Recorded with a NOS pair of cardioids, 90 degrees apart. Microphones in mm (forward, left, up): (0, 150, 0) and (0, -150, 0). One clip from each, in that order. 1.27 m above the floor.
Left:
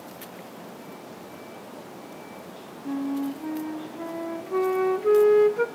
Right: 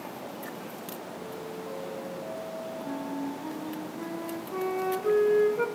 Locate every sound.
2.9 s a flute: 35° left, 1.0 m